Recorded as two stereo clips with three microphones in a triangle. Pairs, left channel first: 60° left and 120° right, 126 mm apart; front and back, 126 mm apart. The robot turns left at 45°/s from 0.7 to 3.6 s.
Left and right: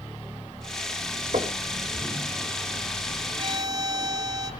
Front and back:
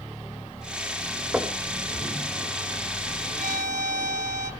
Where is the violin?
170° right, 1.7 m; by 4.5 s straight behind, 1.7 m.